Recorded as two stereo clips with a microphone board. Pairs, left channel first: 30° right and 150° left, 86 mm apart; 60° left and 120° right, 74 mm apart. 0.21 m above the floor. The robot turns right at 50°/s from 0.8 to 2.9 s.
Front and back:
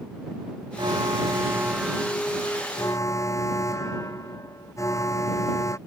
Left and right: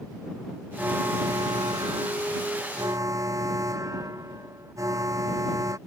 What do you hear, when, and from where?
0.8 s an alarm: 175° left; by 5.8 s 80° right